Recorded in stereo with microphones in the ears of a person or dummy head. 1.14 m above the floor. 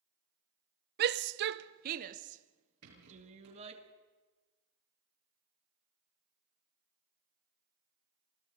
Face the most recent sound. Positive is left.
turn(degrees=-80)